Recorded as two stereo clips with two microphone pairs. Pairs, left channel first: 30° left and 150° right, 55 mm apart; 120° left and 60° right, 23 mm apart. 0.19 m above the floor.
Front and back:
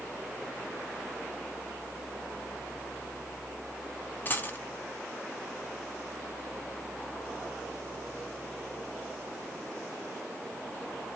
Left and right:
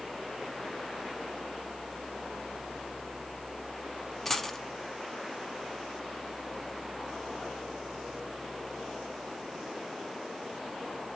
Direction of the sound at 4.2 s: 55° left.